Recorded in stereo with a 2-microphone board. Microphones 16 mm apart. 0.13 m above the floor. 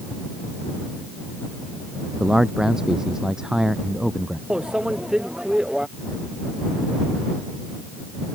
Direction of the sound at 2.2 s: 45° right (ahead or behind).